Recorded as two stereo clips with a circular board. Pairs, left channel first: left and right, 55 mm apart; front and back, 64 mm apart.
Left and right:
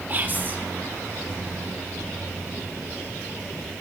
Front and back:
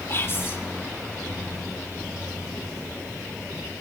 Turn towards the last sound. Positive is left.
turn(degrees=-40)